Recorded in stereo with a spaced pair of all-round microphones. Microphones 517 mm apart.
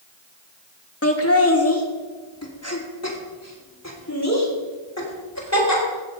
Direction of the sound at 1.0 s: 25° left (ahead or behind).